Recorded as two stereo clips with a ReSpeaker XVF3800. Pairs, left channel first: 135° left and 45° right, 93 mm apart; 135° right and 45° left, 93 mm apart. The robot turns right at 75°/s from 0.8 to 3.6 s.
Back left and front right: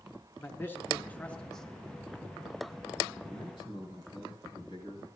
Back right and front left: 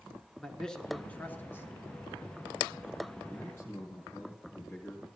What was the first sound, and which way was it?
A man speaking, 155° left.